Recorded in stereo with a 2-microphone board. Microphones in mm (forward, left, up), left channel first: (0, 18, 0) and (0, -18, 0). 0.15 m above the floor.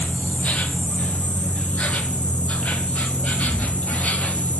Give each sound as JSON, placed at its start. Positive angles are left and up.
{"t": 0.0, "sound": "an insect", "side_deg": 40, "distance_m": 0.8}